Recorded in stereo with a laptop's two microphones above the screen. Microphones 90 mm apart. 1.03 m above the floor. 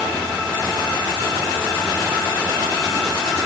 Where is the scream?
No scream in this recording.